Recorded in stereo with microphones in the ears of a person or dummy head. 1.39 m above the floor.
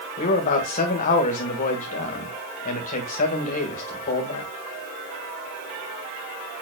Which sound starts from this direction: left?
A man speaking, at 0.2 s.